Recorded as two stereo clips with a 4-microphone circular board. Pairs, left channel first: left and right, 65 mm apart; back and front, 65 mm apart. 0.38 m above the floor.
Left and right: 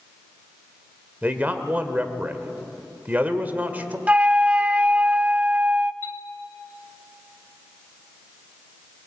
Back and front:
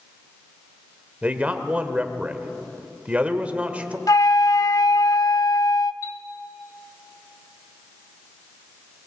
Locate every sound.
1.2 s a man speaking: 50° right, 1.5 m
4.1 s a flute: 160° right, 0.5 m
6.0 s a chime: 145° left, 1.1 m